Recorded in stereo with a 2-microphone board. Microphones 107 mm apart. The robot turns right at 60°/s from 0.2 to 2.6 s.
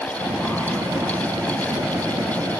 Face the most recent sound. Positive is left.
No sound to turn to.